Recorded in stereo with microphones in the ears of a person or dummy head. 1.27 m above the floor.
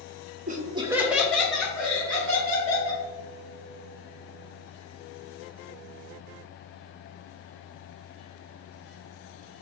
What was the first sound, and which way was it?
Laughter, 35° right (ahead or behind).